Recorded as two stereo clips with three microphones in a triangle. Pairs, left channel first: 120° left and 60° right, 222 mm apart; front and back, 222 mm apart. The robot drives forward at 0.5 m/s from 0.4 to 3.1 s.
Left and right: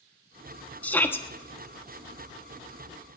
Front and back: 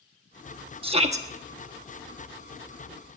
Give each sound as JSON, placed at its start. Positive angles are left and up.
{"t": 0.8, "sound": "a shout", "azimuth_deg": -165, "distance_m": 1.3}